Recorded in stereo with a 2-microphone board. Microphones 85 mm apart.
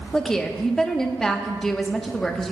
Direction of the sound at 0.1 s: 5° left (ahead or behind).